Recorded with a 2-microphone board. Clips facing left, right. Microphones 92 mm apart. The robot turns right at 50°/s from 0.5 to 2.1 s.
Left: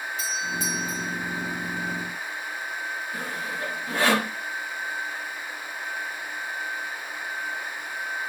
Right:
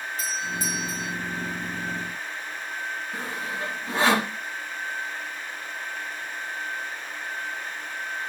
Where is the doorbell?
65° right, 2 m; by 1.1 s 35° right, 2 m.